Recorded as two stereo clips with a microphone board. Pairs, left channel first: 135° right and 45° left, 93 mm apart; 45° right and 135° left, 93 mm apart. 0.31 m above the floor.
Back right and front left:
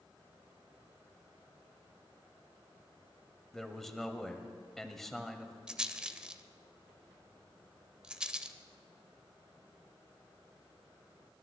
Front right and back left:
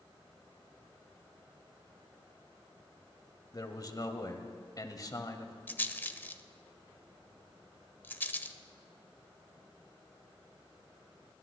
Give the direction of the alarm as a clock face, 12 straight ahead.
I don't hear an alarm.